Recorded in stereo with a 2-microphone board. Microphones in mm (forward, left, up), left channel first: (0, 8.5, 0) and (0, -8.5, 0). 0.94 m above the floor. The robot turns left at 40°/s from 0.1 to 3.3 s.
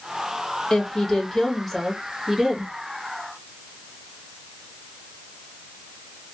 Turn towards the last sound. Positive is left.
turn(degrees=-60)